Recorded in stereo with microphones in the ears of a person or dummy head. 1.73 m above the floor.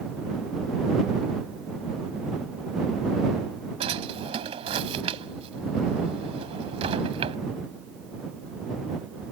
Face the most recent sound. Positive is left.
turn(degrees=-25)  # may be behind; listen again after turning